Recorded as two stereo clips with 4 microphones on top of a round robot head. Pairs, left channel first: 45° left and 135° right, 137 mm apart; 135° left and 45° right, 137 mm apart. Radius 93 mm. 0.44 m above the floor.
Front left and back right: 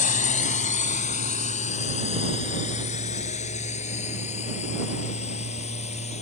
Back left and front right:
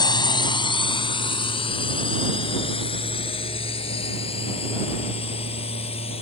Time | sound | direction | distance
0.0 | a drone | 75° left | ?